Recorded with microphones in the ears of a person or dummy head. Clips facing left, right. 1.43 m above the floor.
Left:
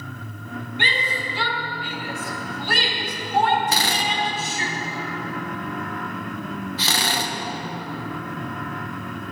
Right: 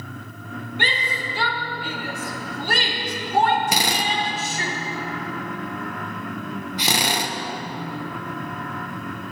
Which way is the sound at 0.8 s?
40° right (ahead or behind).